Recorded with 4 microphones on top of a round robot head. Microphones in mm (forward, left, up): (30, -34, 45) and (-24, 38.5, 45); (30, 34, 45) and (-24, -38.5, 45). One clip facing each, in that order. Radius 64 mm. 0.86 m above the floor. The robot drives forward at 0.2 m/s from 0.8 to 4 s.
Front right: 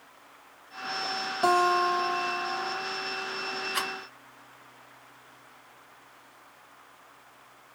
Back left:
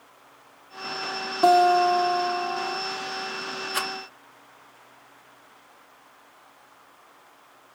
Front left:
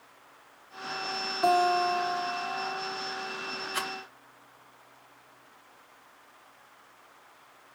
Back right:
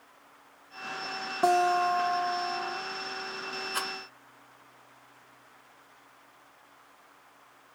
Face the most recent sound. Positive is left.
turn(degrees=180)